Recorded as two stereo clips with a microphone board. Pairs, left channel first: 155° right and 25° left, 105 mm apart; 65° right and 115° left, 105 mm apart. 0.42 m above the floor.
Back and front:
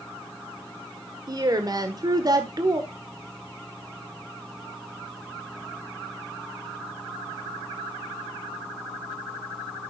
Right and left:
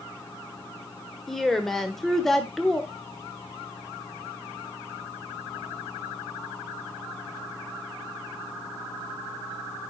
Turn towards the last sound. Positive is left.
turn(degrees=20)